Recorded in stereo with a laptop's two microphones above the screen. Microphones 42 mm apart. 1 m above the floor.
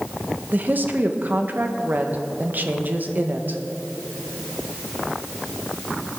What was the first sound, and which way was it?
A woman speaking, 50° right (ahead or behind).